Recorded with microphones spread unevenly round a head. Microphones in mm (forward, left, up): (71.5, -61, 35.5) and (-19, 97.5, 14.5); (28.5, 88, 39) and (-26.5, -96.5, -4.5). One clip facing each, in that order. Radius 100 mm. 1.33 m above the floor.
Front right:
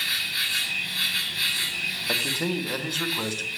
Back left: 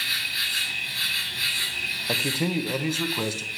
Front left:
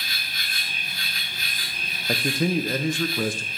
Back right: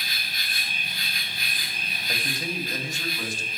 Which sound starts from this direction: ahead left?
A man speaking, at 2.1 s.